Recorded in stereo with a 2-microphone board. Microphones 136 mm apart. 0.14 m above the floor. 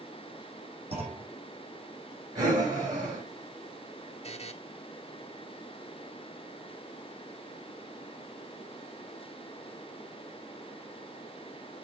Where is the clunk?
45° right (ahead or behind), 6 m.